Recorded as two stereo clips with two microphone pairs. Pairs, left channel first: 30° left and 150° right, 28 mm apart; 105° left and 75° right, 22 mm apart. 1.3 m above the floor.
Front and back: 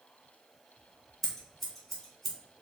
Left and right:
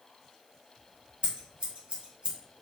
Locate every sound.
1.2 s scissors: 50° right, 1.7 m